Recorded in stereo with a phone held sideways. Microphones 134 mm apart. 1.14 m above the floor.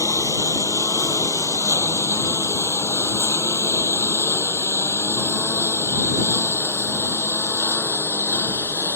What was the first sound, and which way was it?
A lawn mower, 25° left (ahead or behind).